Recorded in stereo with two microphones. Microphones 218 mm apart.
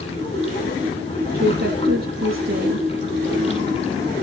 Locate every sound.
0.0 s running water: 25° left (ahead or behind), 5.5 m
1.3 s a woman speaking: 50° right (ahead or behind), 2 m